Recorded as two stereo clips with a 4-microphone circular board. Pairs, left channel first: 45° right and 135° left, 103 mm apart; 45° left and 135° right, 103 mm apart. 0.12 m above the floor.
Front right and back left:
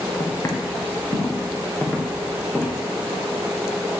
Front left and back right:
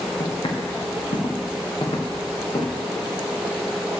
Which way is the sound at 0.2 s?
10° left.